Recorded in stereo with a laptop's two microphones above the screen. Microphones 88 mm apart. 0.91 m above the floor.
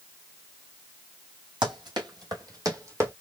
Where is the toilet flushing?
No toilet flushing in this recording.